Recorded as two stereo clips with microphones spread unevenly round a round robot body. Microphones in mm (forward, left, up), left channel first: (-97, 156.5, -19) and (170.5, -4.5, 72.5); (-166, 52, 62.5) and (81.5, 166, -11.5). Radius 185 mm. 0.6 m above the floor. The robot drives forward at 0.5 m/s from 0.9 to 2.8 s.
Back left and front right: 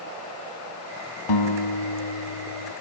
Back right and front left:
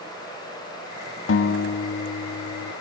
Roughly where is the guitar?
Behind.